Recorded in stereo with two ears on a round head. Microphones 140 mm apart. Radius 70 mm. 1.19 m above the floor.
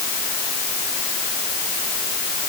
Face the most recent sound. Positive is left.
No sound to turn to.